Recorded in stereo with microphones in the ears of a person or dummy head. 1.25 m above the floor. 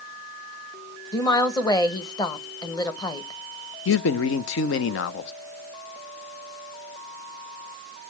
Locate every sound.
1.1 s a woman speaking: 15° left (ahead or behind), 1.1 m
3.9 s a man speaking: 65° left (ahead or behind), 0.8 m